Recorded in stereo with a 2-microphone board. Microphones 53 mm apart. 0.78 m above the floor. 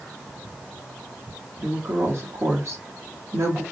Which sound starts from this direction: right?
A woman speaking, at 1.6 s.